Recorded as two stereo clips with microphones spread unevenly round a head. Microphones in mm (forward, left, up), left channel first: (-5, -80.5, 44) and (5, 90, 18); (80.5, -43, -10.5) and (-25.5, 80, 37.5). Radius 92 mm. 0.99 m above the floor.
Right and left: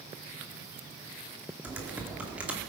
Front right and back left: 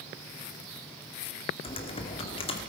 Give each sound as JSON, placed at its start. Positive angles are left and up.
{"t": 1.6, "sound": "typing on a keyboard", "azimuth_deg": 5, "distance_m": 2.0}